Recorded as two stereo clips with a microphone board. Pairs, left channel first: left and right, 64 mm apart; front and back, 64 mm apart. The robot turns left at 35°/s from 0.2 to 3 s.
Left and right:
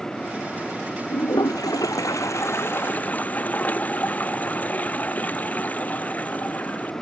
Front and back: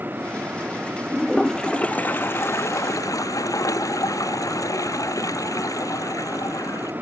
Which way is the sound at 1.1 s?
90° left.